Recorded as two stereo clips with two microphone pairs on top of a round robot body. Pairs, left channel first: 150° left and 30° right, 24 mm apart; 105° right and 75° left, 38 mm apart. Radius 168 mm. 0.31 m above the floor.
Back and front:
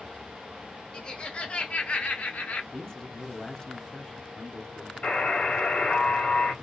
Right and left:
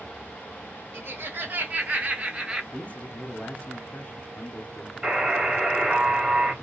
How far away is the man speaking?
About 1.1 m.